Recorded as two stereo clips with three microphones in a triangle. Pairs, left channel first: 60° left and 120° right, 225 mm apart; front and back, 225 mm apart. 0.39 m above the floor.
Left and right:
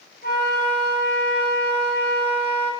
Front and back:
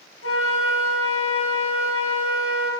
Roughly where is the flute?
Ahead.